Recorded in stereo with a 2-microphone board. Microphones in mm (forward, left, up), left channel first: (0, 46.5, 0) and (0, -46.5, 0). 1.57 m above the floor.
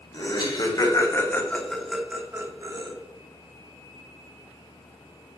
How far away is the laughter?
About 1.3 m.